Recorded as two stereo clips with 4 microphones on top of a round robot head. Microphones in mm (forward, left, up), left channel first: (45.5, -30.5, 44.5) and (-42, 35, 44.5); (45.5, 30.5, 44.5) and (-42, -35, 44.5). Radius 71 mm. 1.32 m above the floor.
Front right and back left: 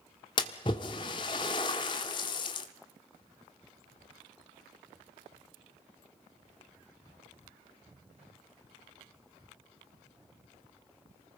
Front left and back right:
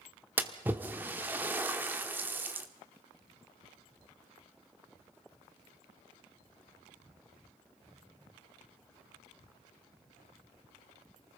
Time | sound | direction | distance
0.4 | a splash | 75° right | 1.1 m